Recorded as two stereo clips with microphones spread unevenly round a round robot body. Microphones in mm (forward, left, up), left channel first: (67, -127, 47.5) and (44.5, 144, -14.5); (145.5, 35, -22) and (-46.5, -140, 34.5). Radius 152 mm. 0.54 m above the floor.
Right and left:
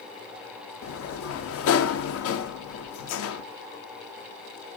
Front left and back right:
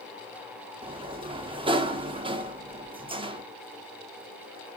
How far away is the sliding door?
About 1.1 m.